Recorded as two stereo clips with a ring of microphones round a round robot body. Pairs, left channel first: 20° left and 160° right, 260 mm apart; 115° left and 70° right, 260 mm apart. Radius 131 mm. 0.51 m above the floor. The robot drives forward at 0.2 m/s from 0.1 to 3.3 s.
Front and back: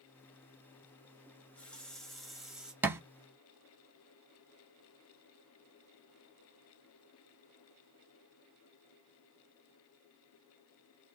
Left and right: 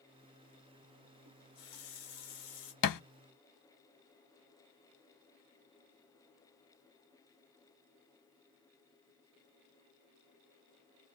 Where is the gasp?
I don't hear a gasp.